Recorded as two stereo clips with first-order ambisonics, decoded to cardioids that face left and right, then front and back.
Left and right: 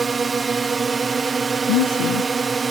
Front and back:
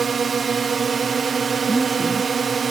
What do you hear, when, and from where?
0.0 s a drone: 140° right
1.7 s a woman speaking: 100° left